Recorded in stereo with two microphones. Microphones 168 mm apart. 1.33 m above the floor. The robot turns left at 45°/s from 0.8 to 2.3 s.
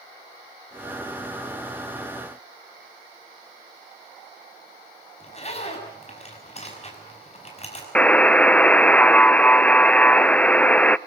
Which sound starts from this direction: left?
A zipper, at 5.2 s.